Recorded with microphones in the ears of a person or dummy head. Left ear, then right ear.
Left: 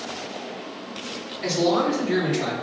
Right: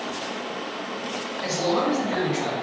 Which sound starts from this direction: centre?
A man speaking, at 1.4 s.